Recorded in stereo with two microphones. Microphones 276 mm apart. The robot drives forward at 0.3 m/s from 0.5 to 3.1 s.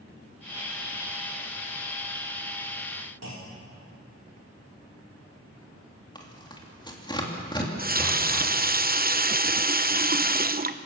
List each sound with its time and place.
3.2 s a clunk: 70° right (ahead or behind), 4 m
6.2 s tearing paper: 15° left (ahead or behind), 3 m
7.6 s a running tap: 35° right (ahead or behind), 0.7 m